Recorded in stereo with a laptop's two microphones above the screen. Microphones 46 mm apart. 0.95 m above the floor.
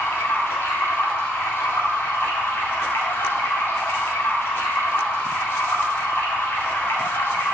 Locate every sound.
0.0 s running water: 65° left (ahead or behind), 2 m